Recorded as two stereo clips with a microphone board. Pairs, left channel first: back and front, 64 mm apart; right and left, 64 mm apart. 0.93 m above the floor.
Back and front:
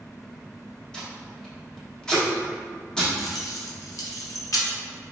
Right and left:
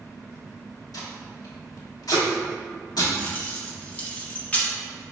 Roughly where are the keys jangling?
Behind right.